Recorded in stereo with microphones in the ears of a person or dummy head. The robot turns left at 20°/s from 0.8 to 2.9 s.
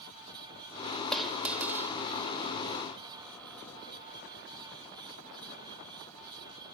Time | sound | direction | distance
1.1 | a dropped coin | centre (ahead or behind) | 2 m